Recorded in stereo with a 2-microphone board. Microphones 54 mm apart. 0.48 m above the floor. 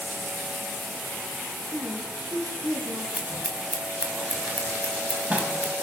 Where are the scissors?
25° right (ahead or behind), 3.5 m.